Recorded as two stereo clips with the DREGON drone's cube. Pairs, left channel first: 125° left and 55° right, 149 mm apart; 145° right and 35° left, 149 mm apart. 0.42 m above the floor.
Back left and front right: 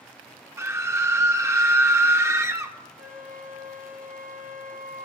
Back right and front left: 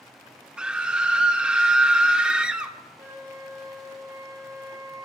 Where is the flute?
35° right, 1.7 m.